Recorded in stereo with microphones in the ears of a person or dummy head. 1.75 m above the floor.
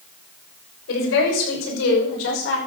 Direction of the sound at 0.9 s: 80° left.